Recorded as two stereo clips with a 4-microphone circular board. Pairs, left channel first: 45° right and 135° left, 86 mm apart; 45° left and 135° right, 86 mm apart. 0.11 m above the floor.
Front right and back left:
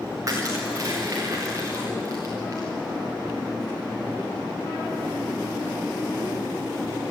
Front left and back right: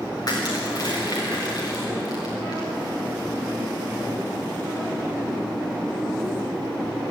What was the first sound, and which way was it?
Crushing, 85° left.